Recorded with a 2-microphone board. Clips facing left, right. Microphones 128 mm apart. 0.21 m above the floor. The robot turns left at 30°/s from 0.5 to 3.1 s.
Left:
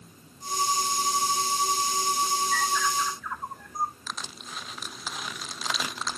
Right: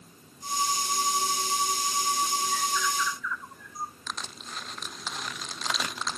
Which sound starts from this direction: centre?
Crushing, at 4.1 s.